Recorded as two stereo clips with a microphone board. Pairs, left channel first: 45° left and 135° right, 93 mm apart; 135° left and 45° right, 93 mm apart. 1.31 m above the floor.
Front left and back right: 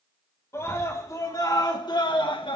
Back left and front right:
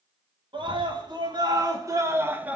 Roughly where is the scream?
Ahead.